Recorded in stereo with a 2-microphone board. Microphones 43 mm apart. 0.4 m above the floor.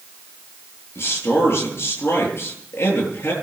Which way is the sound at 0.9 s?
70° left (ahead or behind).